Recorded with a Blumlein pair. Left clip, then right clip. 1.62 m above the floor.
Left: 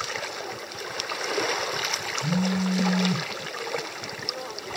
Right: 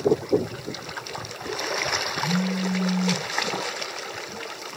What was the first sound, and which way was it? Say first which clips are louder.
A phone buzzing: right 1 dB; 5° left.